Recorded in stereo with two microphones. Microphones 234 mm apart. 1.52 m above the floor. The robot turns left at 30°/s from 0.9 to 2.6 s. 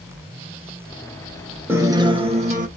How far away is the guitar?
About 1.2 m.